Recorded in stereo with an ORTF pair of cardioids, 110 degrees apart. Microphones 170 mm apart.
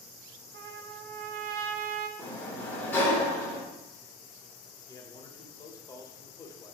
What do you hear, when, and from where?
0.5 s a trumpet: 65° right, 0.6 m
2.2 s a sliding door: 10° left, 1.5 m
4.9 s a man speaking: 20° left, 0.9 m